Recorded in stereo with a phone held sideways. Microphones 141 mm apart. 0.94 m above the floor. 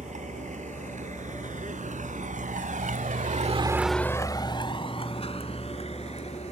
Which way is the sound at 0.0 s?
65° right (ahead or behind).